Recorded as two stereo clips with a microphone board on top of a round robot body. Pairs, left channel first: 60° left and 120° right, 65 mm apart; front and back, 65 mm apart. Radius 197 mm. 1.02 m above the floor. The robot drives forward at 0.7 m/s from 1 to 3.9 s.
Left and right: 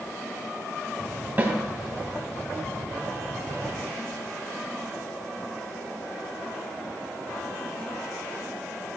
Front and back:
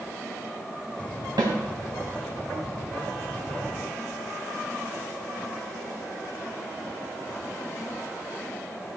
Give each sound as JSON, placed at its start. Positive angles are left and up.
{"t": 1.4, "sound": "a snare drum", "azimuth_deg": 180, "distance_m": 2.0}